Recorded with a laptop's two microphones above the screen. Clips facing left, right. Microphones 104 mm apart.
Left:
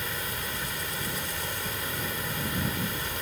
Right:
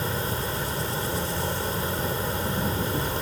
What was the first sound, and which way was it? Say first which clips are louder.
An insect: right 7 dB; 35° right (ahead or behind).